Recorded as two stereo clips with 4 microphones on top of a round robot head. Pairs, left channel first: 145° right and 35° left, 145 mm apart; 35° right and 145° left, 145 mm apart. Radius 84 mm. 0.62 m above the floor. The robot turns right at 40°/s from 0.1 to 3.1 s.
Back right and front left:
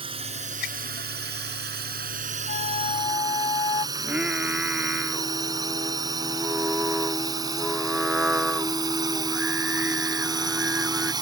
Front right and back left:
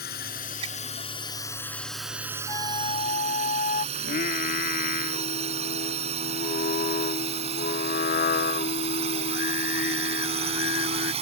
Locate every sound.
0.0 s a drone: 20° right; by 11.2 s 95° left
2.5 s a flute: 105° right; by 3.9 s 80° right
4.0 s singing: 45° right